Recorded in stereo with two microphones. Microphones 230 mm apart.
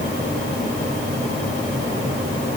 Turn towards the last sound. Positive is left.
No sound to turn to.